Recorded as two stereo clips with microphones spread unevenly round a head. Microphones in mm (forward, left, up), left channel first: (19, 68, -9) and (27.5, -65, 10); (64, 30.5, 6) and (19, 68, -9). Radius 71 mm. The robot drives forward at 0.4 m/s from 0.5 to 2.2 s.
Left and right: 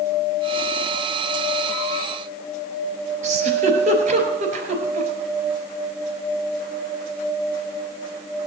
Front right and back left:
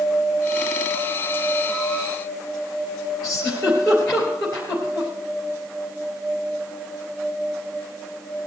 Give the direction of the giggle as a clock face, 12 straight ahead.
4 o'clock.